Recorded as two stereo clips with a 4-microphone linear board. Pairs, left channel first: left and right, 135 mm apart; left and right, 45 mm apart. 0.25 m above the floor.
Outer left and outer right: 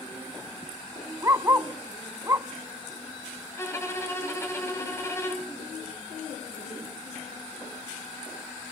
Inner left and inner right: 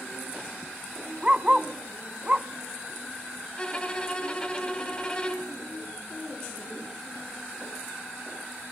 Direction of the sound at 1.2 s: 25° right (ahead or behind).